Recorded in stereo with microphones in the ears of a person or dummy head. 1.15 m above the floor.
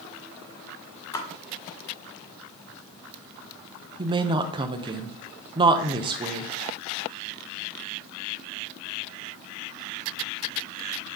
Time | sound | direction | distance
1.1 | a splash | 30° left (ahead or behind) | 1.4 m
4.0 | a woman speaking | 30° right (ahead or behind) | 0.5 m